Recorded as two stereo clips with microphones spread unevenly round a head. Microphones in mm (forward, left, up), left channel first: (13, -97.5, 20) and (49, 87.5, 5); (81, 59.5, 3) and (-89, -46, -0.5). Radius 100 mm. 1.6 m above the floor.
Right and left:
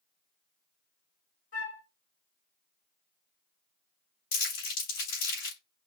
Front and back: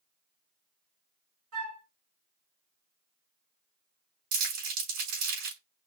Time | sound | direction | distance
1.5 | a flute | 150° right | 4 m
4.3 | crumpling | 150° right | 3.5 m